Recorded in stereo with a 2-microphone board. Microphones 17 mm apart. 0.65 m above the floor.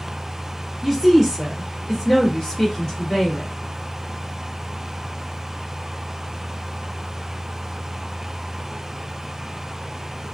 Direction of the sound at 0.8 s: 10° right (ahead or behind).